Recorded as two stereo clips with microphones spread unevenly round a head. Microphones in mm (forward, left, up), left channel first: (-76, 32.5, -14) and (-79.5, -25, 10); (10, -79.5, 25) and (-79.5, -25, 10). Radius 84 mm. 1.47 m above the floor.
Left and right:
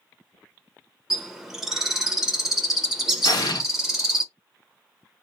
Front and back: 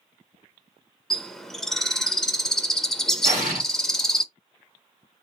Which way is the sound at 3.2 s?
95° left.